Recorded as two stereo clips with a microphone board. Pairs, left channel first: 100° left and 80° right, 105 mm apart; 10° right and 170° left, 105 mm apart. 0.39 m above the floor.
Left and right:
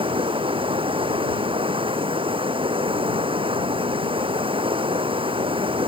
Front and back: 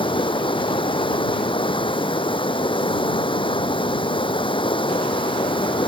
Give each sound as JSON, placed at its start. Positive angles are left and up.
{"t": 0.0, "sound": "running water", "azimuth_deg": -45}